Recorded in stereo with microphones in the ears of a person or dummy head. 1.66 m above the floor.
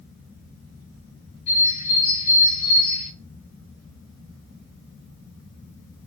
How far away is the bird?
About 4 m.